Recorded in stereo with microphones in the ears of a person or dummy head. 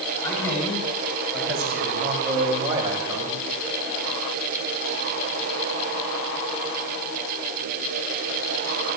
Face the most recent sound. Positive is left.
turn(degrees=-30)  # may be behind; listen again after turning